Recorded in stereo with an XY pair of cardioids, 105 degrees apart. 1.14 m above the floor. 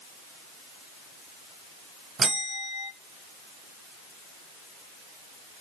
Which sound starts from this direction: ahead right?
A bell, at 2.2 s.